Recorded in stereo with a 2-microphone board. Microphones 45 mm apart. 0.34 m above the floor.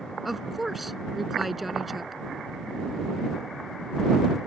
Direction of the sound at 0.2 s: Centre (ahead or behind).